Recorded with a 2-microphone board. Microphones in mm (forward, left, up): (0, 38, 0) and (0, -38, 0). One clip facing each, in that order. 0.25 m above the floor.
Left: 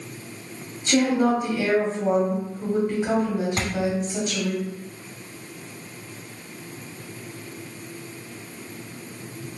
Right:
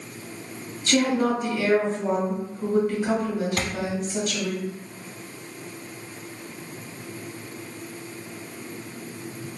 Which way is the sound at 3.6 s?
25° left (ahead or behind).